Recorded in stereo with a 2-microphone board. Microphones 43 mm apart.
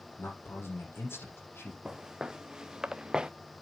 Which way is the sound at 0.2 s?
70° left (ahead or behind).